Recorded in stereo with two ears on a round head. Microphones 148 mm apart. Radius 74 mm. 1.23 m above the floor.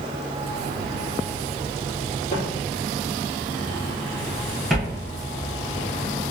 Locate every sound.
2.3 s footsteps: 45° left (ahead or behind), 1.6 m; by 5.0 s 5° right (ahead or behind), 1.4 m